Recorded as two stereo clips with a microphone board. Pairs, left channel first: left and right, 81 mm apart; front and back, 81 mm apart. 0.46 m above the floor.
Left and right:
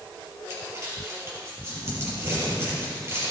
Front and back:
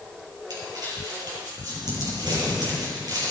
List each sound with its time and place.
0.5 s crumpling: 145° right, 6 m